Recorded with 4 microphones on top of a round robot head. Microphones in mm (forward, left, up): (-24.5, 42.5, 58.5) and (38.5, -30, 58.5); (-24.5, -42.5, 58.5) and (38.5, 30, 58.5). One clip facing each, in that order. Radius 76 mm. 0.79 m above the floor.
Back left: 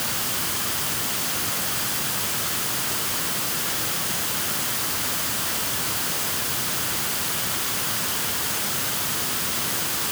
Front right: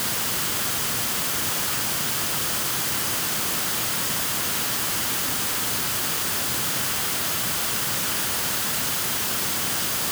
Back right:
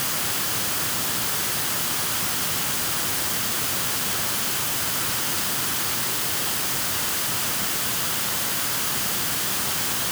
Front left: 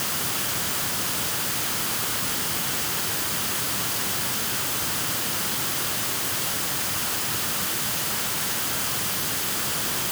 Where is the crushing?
No crushing in this recording.